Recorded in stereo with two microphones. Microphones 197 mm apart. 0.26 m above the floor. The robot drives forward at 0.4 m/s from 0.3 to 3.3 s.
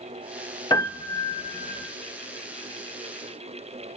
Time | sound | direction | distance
0.7 | a piano | 20° left (ahead or behind) | 0.8 m